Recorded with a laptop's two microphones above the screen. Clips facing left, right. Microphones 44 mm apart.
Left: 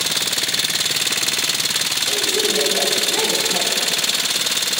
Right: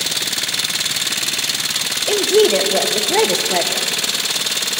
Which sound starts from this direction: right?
A woman speaking, at 2.1 s.